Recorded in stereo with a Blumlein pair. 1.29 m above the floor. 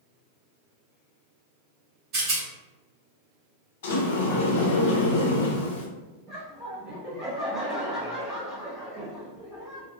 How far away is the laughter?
About 0.7 m.